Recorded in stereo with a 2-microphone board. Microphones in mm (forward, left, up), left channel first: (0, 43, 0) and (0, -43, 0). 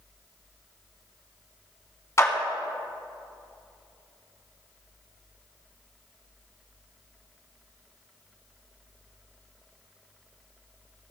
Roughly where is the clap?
Left.